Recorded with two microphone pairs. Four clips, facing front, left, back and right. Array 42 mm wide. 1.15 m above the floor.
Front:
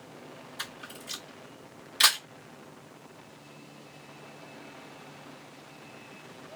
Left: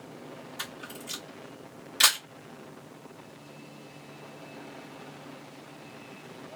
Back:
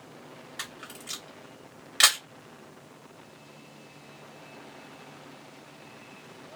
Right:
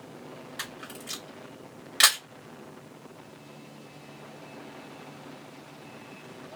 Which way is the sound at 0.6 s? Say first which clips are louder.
Right 1 dB, even; 140° right.